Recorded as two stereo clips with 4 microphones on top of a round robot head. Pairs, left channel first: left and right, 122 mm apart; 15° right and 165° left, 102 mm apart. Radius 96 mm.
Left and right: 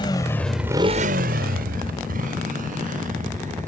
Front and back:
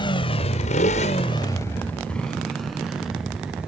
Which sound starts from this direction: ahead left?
A motorcycle, at 0.0 s.